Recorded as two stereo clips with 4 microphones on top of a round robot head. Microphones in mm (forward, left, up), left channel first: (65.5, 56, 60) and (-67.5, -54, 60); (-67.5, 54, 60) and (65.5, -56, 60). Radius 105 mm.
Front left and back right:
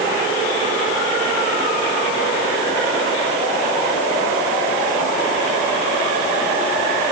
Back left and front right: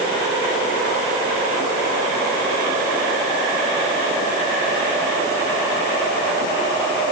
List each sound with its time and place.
Only background noise.